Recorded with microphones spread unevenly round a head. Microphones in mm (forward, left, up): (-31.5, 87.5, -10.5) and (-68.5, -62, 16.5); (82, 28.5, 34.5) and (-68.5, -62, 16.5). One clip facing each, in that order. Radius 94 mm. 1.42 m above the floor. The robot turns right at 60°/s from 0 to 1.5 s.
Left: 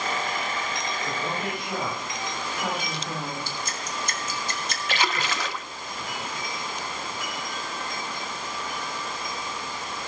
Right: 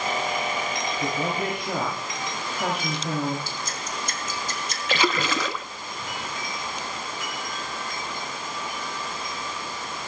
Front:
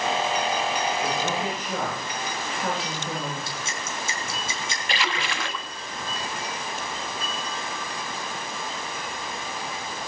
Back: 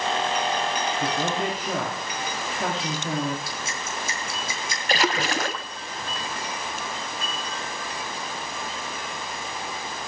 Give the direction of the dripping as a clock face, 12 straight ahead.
9 o'clock.